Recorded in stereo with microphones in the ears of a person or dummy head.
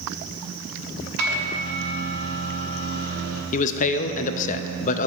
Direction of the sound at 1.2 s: 70° right (ahead or behind).